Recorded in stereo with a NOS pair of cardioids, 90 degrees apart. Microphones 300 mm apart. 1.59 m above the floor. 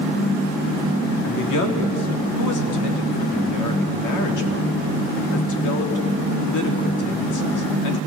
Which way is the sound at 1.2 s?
70° left.